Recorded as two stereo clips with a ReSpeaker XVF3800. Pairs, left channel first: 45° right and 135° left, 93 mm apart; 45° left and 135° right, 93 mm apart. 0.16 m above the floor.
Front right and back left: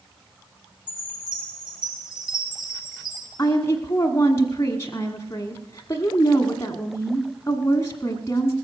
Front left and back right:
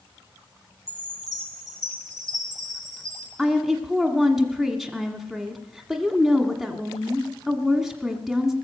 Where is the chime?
170° left, 4.5 m.